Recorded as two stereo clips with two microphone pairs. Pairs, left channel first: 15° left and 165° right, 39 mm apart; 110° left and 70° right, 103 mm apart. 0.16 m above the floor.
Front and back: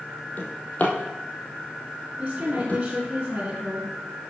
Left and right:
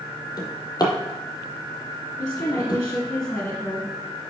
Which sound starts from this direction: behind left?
A woman speaking, at 2.2 s.